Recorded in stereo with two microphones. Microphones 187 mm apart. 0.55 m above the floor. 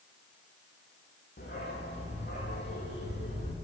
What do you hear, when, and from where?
1.4 s a dog barking: 70° left (ahead or behind), 8.5 m